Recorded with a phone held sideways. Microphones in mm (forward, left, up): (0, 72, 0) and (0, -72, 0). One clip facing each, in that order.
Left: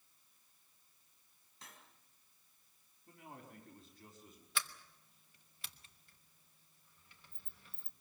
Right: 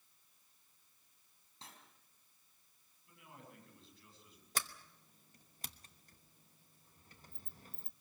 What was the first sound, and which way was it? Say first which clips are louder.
Cutlery clinking: right 2 dB; 30° right (ahead or behind).